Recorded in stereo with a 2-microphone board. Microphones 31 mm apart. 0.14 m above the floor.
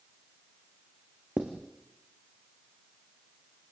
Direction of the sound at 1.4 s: 20° right (ahead or behind).